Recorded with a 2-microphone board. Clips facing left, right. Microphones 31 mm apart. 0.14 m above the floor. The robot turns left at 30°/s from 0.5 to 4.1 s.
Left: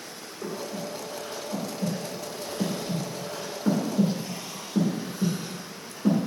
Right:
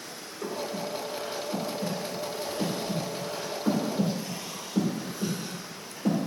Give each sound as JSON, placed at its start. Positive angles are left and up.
{"t": 0.4, "sound": "breathing", "side_deg": -30, "distance_m": 1.9}